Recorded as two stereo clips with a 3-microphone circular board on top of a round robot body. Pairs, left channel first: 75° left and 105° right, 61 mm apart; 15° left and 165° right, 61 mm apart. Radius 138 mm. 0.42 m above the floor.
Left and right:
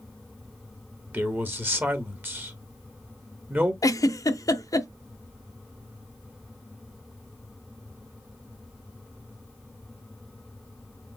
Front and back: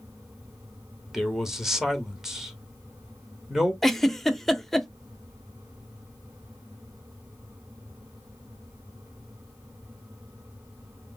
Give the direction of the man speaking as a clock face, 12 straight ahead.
3 o'clock.